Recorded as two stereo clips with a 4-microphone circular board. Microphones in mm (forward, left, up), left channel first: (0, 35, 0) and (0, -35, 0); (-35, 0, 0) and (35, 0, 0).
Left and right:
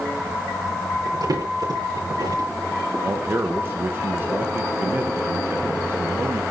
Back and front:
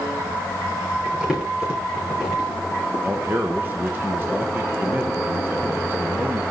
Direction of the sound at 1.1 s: 80° right.